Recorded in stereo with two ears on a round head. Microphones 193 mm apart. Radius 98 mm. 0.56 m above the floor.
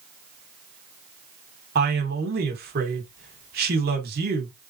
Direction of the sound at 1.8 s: 50° right (ahead or behind).